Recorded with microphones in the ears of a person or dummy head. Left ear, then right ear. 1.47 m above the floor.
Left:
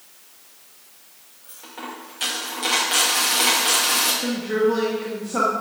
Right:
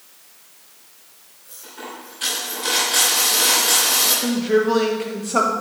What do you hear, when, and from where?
1.4 s a dropped coin: 35° left (ahead or behind), 2.5 m
4.2 s a woman speaking: 25° right (ahead or behind), 1.3 m